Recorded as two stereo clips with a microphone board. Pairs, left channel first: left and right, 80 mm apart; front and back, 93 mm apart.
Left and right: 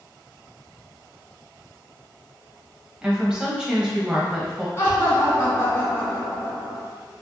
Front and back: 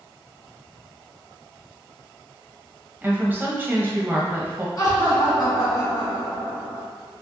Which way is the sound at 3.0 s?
155° right.